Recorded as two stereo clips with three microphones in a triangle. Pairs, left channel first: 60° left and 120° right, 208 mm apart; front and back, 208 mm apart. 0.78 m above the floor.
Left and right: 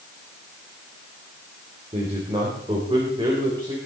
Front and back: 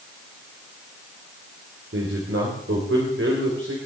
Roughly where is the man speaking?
Behind.